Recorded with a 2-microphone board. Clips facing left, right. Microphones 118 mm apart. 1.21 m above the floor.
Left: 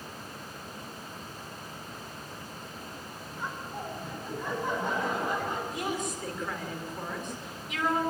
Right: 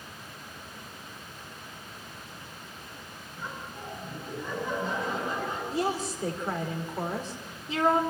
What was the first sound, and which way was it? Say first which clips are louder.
Laughter: left 3 dB; 60° left (ahead or behind).